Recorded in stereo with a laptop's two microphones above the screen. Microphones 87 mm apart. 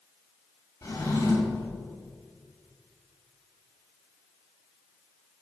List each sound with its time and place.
0.8 s a drawer: 40° left (ahead or behind), 3.5 m